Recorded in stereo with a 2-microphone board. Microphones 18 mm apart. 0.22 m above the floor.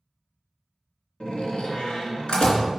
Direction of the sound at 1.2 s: 65° left (ahead or behind).